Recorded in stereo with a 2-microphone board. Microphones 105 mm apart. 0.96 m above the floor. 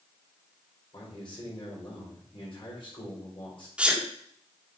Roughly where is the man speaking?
Left.